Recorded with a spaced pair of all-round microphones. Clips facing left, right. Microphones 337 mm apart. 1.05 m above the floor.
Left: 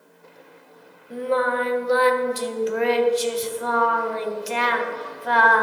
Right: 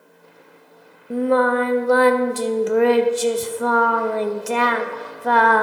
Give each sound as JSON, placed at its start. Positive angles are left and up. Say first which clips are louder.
{"t": 1.1, "sound": "singing", "louder": "right 6 dB", "side_deg": -60, "distance_m": 0.5}